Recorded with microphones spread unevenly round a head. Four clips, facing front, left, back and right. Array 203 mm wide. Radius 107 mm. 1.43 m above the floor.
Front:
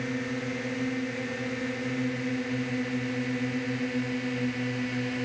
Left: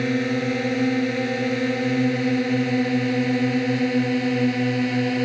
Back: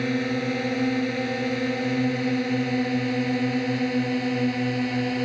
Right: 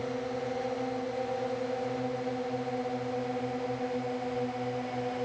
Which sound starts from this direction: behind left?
A drone, at 0.0 s.